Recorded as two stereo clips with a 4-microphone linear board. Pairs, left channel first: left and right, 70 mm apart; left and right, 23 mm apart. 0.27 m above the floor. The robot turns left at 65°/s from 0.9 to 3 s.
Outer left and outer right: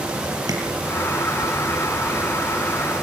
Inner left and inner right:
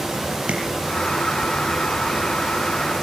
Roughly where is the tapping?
Right.